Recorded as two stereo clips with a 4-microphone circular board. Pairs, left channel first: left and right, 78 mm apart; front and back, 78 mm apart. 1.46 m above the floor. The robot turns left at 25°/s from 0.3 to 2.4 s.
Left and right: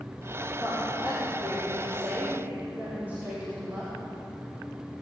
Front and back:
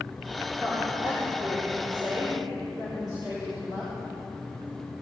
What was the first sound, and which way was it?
A woman speaking, 115° right.